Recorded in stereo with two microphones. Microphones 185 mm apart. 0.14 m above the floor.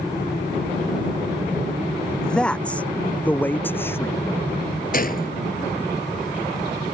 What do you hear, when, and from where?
2.2 s a man speaking: 5° left (ahead or behind); by 4.2 s 15° left (ahead or behind)
4.9 s a gunshot: 50° left (ahead or behind)